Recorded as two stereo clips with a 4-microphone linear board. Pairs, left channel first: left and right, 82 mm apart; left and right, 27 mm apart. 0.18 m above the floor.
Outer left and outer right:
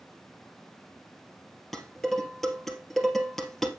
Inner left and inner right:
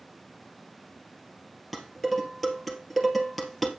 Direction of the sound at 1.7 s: Centre (ahead or behind).